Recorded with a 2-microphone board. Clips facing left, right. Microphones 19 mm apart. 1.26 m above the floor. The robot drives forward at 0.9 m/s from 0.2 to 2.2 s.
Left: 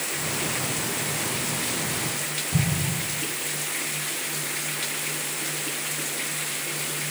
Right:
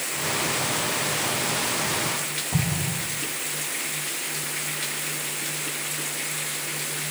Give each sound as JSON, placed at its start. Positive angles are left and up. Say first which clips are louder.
{"t": 2.5, "sound": "an explosion", "louder": "left 1 dB", "side_deg": -45, "distance_m": 2.5}